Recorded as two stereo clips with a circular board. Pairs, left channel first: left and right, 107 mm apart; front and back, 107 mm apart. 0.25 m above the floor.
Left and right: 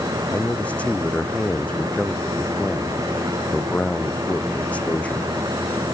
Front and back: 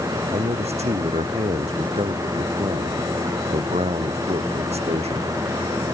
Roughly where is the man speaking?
Behind.